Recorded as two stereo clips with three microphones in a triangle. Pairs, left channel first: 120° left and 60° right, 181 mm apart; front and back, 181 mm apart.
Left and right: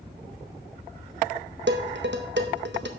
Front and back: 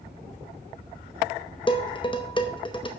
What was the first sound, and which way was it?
Dishes clattering, 65° right.